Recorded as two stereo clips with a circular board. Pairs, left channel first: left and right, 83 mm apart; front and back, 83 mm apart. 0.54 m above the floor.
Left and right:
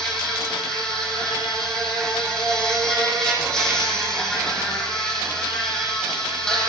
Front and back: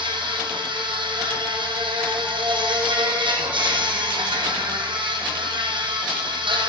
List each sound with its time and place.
0.0 s an insect: 175° left, 3.5 m